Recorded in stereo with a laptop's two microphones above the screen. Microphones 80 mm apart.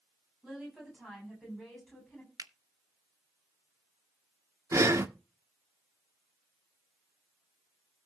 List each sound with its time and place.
0.4 s a woman speaking: 10° right (ahead or behind), 8 m; by 2.3 s centre (ahead or behind), 8 m
2.4 s a finger snap: 50° right (ahead or behind), 1.0 m
4.7 s breathing: 35° right (ahead or behind), 1.4 m